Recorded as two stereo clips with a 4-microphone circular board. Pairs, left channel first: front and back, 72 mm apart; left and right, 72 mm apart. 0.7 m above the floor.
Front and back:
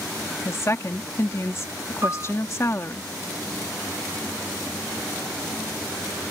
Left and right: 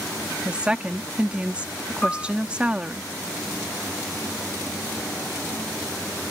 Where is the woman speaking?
25° right.